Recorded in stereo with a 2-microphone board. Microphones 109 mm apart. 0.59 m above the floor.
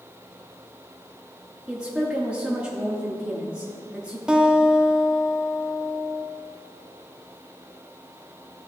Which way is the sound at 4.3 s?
10° right (ahead or behind).